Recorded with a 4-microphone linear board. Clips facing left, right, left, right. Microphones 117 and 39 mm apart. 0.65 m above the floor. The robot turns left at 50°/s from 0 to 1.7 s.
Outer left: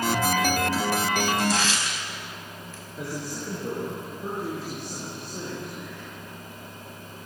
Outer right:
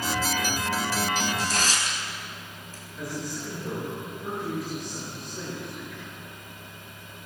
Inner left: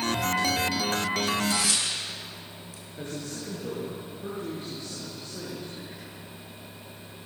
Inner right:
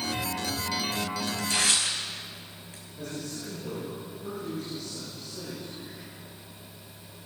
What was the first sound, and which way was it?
Tearing paper, 55° right (ahead or behind).